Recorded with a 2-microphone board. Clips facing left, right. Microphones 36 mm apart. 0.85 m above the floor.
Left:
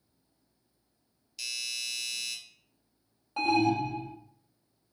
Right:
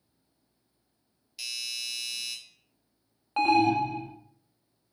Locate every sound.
1.4 s a doorbell: 15° right (ahead or behind), 0.8 m
3.4 s an alarm: 45° right (ahead or behind), 0.6 m